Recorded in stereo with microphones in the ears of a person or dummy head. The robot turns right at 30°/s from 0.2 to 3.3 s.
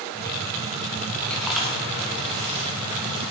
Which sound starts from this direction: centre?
Chewing, at 1.3 s.